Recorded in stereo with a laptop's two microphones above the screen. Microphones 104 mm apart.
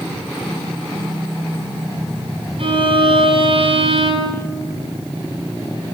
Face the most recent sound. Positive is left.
turn(degrees=-60)  # may be behind; listen again after turning